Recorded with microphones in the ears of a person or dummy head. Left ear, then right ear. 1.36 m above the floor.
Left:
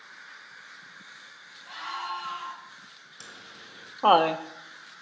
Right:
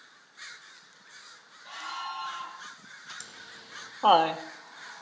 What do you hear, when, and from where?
1.6 s a scream: 25° right (ahead or behind), 6 m
3.2 s laughter: 5° right (ahead or behind), 0.6 m